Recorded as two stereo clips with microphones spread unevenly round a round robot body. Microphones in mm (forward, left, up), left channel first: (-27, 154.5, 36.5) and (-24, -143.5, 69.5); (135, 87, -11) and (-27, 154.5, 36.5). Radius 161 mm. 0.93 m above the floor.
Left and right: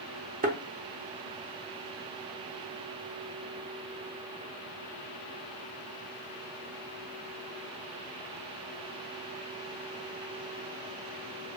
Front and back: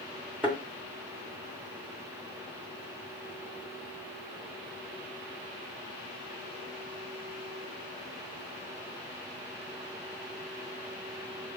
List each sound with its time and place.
0.4 s a thud: 135° right, 0.7 m